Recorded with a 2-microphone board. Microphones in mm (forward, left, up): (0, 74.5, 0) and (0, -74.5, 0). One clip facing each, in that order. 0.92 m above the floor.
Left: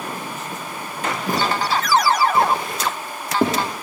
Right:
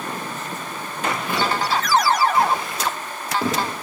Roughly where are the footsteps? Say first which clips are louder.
Left 2 dB; left.